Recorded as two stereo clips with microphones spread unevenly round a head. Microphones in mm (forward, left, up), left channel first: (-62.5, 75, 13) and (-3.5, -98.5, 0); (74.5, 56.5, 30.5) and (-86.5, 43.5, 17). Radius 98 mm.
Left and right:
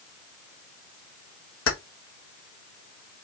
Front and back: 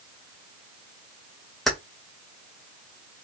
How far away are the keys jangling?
About 1.4 m.